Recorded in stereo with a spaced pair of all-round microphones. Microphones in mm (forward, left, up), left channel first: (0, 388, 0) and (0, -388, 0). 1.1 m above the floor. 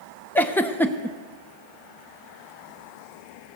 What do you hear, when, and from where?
0.3 s a giggle: 5° left (ahead or behind), 0.5 m